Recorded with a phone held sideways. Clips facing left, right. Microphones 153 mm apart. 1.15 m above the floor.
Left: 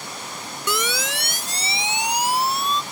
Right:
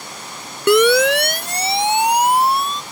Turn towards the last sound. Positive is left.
turn(degrees=-50)  # may be behind; listen again after turning